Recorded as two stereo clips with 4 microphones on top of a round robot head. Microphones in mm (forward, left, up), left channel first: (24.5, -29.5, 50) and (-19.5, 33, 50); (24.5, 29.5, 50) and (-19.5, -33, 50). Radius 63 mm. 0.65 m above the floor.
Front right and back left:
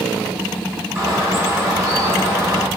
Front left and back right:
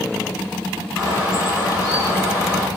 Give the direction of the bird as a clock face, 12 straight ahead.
9 o'clock.